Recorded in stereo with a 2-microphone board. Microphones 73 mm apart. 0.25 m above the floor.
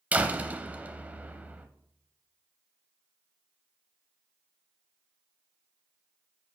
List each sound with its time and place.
0.1 s a door slam: 20° right (ahead or behind), 0.7 m